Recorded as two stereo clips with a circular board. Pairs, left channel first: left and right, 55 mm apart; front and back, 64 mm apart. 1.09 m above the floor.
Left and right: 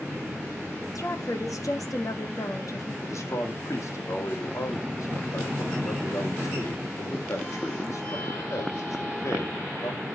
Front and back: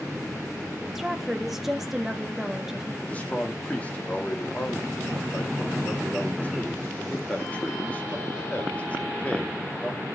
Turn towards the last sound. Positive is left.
turn(degrees=70)